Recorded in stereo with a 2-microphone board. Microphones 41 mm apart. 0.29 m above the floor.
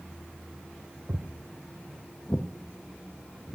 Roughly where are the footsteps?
Right.